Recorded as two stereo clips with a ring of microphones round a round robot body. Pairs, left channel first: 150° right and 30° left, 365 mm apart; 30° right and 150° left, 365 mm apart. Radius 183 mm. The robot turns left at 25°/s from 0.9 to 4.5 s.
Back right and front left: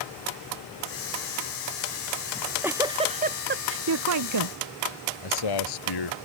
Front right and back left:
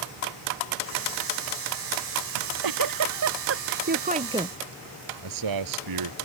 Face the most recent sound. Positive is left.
turn(degrees=-175)